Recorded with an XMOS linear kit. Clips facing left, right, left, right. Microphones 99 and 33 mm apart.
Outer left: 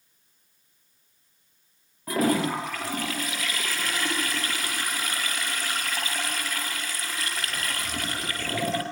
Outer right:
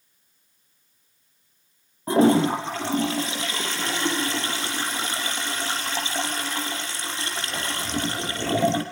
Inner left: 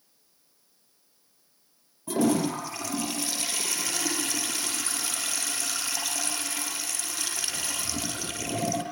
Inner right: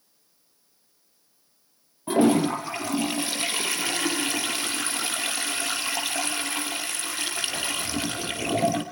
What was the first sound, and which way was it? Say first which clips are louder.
A toilet flushing: outer right 6 dB, inner right 5 dB; 30° right (ahead or behind).